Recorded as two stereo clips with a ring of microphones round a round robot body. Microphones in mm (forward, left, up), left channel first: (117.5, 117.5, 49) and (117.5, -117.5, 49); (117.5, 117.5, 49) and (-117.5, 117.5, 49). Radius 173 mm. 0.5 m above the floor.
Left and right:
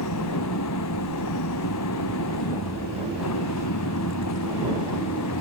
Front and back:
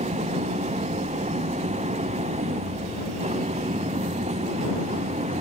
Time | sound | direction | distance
0.0 | an engine running | 120° left | ?